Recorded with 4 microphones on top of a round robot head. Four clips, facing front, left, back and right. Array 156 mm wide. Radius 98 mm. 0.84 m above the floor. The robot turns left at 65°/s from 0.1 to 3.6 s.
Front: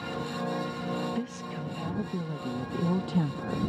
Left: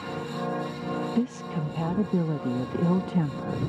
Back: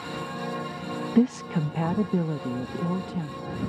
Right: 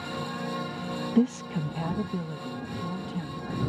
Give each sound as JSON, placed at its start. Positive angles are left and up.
{"t": 1.1, "sound": "a woman speaking", "azimuth_deg": -160}